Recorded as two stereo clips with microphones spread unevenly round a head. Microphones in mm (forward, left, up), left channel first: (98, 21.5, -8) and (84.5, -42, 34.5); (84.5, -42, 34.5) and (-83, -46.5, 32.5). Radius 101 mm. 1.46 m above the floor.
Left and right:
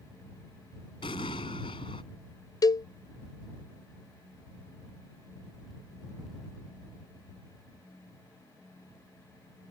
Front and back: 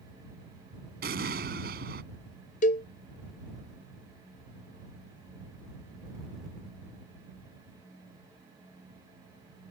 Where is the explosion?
135° left.